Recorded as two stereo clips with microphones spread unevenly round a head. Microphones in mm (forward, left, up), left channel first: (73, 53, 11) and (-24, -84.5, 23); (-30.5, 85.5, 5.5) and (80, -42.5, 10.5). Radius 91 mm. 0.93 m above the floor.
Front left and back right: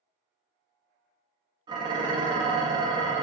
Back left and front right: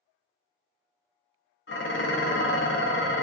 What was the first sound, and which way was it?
Dishes clattering, 165° left.